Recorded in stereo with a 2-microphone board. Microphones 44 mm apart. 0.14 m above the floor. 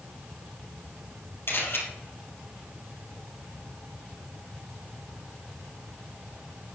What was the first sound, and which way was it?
A camera shutter, 55° left (ahead or behind).